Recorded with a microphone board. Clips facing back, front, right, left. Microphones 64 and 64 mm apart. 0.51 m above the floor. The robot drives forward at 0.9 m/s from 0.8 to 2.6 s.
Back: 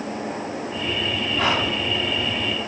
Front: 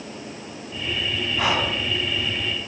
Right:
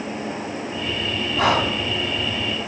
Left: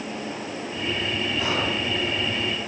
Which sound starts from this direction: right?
Breathing, at 1.4 s.